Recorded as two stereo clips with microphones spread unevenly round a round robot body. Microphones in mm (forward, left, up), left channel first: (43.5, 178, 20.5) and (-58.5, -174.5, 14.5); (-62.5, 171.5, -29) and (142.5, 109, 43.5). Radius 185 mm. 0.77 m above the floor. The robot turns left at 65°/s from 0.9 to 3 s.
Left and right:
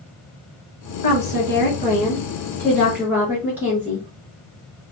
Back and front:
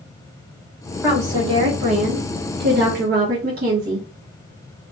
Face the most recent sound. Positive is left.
turn(degrees=-30)